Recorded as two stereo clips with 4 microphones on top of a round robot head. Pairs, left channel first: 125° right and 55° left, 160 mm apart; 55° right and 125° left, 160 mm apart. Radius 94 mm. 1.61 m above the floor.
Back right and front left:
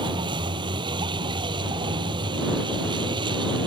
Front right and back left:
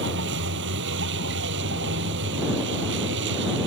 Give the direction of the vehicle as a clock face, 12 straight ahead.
8 o'clock.